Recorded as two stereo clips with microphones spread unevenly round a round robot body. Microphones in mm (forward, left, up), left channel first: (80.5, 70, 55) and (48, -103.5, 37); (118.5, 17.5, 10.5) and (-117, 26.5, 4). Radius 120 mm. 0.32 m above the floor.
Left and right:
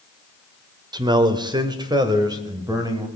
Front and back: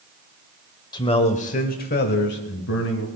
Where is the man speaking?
65° right, 1.0 m; by 3.1 s 35° right, 1.8 m.